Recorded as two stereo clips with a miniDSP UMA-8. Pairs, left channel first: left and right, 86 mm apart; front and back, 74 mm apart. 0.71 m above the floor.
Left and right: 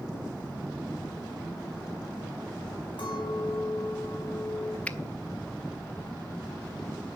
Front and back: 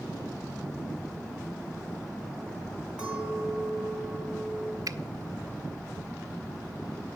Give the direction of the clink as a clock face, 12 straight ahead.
9 o'clock.